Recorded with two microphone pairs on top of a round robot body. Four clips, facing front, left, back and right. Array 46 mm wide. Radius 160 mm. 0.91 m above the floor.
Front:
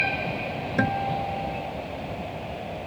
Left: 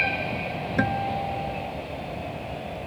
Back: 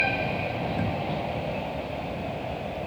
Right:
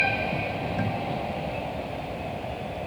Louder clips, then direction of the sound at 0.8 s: Left 4 dB, front 4 dB; 45° left.